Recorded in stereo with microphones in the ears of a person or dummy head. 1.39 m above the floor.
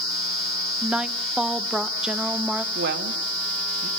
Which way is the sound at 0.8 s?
5° right (ahead or behind).